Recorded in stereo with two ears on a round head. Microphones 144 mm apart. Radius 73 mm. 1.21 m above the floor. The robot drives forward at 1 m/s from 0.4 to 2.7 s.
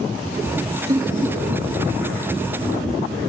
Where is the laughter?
25° right (ahead or behind), 0.7 m; by 1.7 s 10° right (ahead or behind), 1.5 m.